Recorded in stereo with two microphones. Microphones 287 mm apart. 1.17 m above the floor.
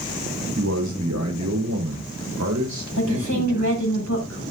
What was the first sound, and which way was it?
A man speaking, 75° right (ahead or behind).